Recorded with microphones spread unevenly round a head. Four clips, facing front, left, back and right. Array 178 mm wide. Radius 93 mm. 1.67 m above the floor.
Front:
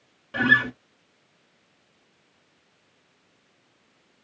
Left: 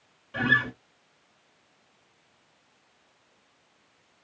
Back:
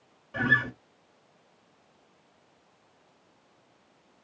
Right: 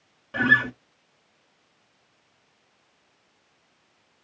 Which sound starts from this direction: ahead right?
A guitar, at 0.3 s.